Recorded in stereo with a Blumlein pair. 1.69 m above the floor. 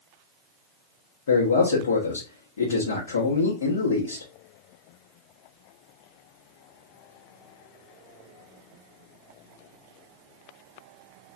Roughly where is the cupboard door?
I don't hear a cupboard door.